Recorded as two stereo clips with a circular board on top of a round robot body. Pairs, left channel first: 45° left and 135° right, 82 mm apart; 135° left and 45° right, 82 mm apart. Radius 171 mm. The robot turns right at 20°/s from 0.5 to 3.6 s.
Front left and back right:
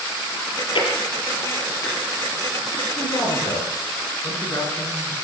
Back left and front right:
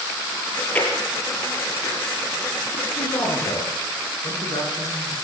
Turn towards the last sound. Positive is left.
turn(degrees=100)